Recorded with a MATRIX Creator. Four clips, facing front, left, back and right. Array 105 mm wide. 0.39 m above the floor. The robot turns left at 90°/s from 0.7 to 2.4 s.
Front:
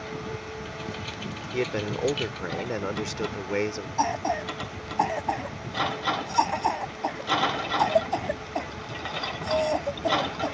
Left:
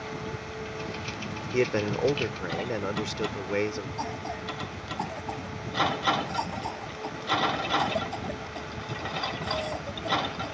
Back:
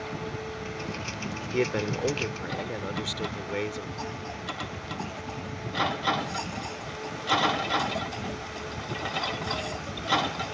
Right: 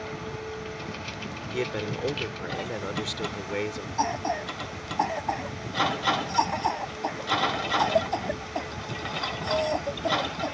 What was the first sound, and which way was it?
A man speaking, 110° left.